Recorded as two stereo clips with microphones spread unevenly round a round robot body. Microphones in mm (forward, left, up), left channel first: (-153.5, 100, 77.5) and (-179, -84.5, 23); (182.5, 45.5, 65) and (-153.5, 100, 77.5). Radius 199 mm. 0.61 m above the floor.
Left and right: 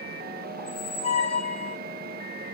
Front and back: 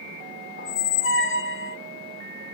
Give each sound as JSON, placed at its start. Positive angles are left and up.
{"t": 0.6, "sound": "a squeak", "azimuth_deg": 20, "distance_m": 0.7}